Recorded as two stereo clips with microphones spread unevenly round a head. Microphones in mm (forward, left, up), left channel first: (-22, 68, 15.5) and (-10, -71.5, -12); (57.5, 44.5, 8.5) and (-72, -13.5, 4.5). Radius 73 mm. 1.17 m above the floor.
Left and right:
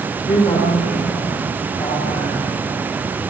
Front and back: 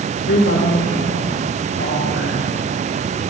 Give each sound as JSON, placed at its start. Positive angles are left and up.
{"t": 0.3, "sound": "a woman speaking", "azimuth_deg": 30, "distance_m": 3.0}